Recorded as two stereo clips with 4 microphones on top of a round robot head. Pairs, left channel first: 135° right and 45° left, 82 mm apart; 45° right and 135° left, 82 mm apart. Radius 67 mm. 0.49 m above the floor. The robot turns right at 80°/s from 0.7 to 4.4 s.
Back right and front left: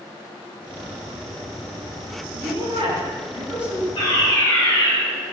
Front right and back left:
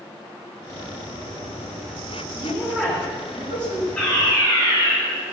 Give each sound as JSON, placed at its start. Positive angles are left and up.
{"t": 2.3, "sound": "a woman speaking", "azimuth_deg": 20, "distance_m": 6.0}
{"t": 4.0, "sound": "a fire alarm", "azimuth_deg": -130, "distance_m": 6.5}